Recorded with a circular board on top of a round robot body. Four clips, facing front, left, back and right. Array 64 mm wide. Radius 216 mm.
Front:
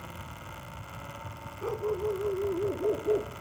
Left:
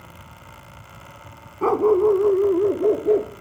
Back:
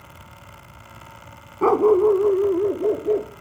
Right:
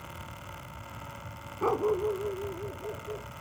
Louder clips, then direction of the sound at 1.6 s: Left 11 dB, back 16 dB; 155° left.